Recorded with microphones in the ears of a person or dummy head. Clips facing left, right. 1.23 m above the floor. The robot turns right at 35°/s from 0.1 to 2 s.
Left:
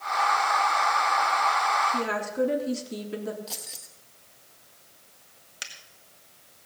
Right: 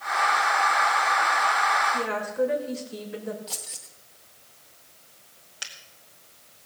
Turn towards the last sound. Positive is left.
turn(degrees=30)  # may be behind; listen again after turning